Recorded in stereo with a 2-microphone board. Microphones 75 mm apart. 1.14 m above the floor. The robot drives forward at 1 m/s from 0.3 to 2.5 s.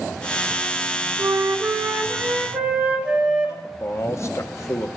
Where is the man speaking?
40° left (ahead or behind), 0.7 m.